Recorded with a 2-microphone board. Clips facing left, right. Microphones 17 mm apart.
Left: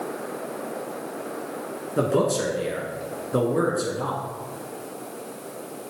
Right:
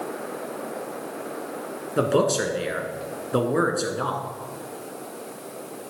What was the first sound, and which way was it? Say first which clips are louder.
A man speaking: right 1 dB; 40° right (ahead or behind).